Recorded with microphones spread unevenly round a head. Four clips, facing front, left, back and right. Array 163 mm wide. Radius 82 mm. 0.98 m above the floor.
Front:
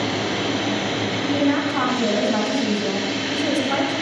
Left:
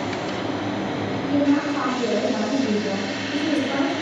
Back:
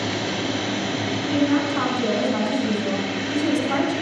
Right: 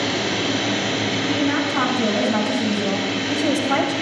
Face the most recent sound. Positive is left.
turn(degrees=-80)